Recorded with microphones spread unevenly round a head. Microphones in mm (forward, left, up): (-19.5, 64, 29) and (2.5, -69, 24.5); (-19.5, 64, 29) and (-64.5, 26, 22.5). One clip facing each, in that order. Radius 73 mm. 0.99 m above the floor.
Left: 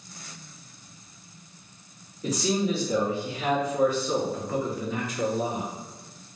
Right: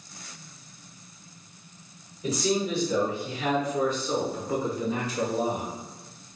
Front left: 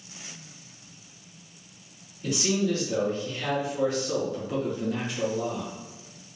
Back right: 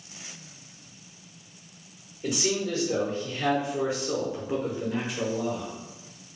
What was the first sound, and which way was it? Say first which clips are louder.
A man speaking: left 1 dB, front left 2 dB; 155° left.